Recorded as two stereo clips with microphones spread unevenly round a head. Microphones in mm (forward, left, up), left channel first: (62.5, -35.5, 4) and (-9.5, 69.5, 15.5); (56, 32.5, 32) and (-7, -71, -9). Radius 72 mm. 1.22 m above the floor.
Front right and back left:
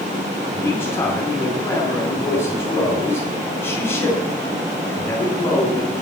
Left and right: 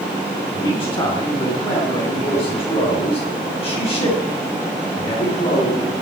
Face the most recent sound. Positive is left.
turn(degrees=15)